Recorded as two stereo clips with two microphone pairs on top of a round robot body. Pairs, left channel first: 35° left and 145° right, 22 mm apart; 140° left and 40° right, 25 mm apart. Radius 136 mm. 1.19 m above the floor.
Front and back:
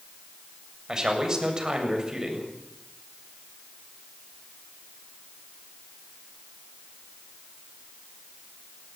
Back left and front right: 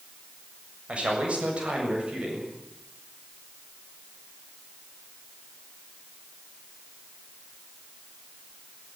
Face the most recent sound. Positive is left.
turn(degrees=-90)